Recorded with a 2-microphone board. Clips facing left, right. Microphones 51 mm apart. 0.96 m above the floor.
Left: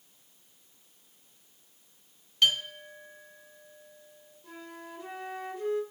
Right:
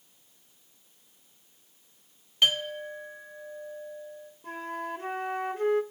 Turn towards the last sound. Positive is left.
turn(degrees=-55)  # may be behind; listen again after turning